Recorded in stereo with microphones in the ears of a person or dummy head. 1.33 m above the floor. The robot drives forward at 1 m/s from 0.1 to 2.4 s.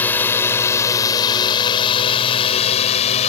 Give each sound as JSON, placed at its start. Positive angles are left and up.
{"t": 0.0, "sound": "a drone", "side_deg": 10}